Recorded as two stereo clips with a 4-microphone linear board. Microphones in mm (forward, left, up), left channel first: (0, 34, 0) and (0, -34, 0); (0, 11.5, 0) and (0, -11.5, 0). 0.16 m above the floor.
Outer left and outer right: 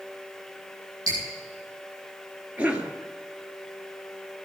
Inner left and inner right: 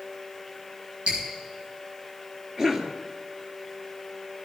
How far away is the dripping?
About 9.5 m.